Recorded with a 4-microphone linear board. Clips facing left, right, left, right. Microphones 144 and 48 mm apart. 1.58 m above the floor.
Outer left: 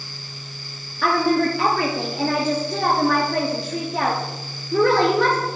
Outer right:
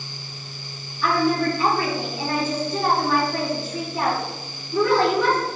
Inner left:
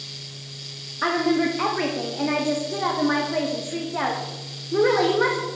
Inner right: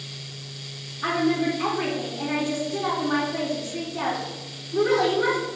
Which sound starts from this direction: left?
A woman speaking, at 1.0 s.